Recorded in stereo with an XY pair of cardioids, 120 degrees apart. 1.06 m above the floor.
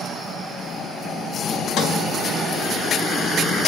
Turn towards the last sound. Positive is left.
turn(degrees=70)